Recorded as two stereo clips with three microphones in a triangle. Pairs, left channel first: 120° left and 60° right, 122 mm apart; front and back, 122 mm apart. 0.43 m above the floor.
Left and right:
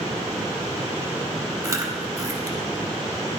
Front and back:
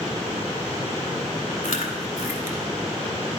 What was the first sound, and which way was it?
Chewing, straight ahead.